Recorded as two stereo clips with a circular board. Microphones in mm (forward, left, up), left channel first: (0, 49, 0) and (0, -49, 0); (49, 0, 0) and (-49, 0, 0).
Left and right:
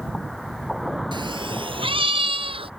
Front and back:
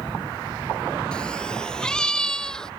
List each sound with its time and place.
1.1 s a cat meowing: 80° right; by 2.7 s 85° right